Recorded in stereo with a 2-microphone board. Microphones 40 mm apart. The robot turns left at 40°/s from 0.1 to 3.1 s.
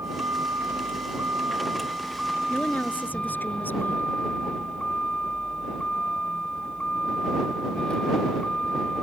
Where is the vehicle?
80° right; by 9.0 s 160° left.